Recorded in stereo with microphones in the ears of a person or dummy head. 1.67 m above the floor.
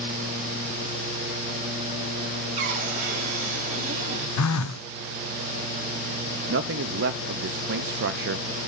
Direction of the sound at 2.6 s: 35° right (ahead or behind).